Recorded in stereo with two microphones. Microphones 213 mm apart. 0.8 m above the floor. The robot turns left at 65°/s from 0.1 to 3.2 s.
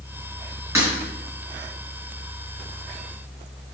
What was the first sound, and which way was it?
Breaking glass, 15° right (ahead or behind).